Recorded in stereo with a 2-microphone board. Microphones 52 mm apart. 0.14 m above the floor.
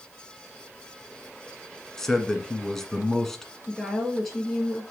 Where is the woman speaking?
5° left (ahead or behind), 2.5 m.